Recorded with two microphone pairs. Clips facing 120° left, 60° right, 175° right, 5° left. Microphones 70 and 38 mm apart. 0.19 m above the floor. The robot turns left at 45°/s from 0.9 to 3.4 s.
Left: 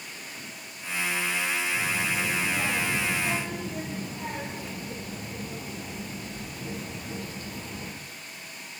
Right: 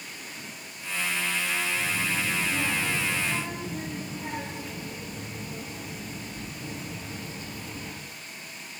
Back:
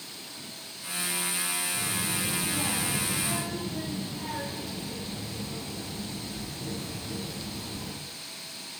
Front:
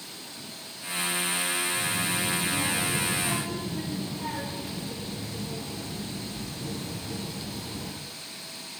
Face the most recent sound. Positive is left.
turn(degrees=95)